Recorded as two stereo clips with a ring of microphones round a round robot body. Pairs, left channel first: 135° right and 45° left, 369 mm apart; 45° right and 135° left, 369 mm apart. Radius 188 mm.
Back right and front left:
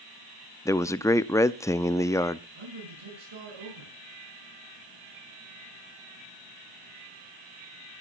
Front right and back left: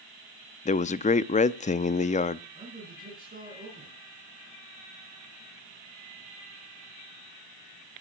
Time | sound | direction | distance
0.7 | a man speaking | 70° right | 0.5 m
2.5 | a man speaking | 65° left | 6.5 m